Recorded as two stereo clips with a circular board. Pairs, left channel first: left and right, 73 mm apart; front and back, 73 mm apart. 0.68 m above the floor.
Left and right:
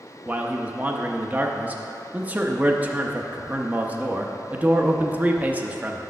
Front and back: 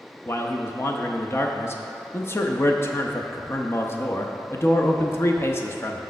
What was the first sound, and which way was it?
A man speaking, 35° right.